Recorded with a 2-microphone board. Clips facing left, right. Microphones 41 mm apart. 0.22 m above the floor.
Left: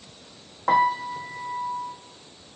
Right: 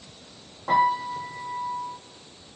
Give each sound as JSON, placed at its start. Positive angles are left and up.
{"t": 0.7, "sound": "a piano", "side_deg": 75, "distance_m": 2.5}